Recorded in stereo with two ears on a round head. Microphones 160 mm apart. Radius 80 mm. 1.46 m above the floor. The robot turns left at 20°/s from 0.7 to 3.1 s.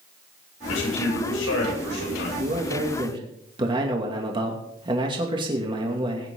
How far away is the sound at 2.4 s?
About 2.5 m.